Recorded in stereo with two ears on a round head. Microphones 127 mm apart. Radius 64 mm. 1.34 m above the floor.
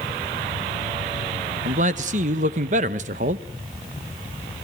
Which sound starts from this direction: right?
A man speaking, at 1.6 s.